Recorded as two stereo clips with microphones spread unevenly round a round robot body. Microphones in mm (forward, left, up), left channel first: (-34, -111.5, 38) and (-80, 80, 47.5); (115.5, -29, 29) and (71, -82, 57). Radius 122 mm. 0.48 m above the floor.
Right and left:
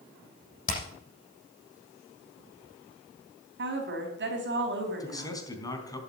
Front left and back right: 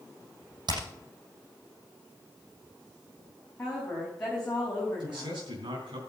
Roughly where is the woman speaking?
Behind left.